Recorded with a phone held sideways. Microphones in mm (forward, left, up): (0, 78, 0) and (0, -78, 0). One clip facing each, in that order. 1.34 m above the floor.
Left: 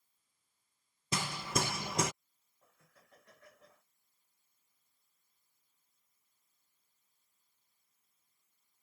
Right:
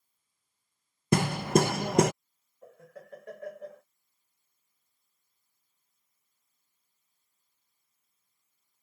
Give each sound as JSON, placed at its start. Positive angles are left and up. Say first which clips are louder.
{"t": 1.1, "sound": "hammering", "louder": "right 12 dB", "side_deg": -60}
{"t": 2.6, "sound": "laughter", "louder": "right 20 dB", "side_deg": -75}